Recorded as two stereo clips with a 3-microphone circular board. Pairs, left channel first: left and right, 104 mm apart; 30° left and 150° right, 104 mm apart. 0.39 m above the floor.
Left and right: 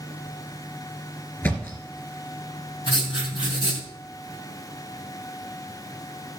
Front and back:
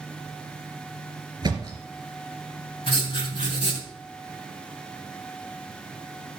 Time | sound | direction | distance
1.4 | a thud | 160° left | 3 m
2.9 | writing | 55° left | 3 m